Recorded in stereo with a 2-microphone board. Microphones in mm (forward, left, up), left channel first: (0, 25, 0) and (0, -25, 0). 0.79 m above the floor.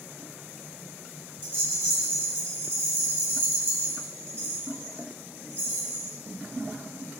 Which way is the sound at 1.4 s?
45° right (ahead or behind).